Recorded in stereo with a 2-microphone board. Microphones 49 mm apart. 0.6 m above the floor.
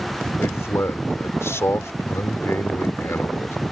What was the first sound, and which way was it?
A man speaking, 65° left (ahead or behind).